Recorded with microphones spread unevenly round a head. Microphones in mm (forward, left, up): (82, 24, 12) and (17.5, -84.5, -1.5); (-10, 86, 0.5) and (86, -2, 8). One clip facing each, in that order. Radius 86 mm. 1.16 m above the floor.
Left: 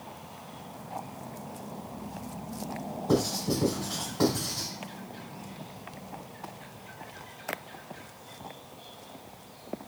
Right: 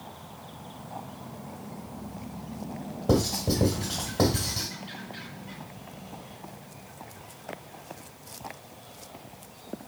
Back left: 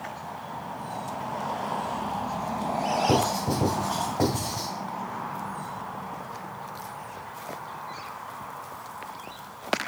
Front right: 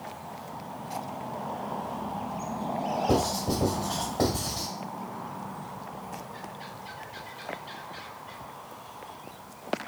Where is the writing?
130° right, 1.7 m.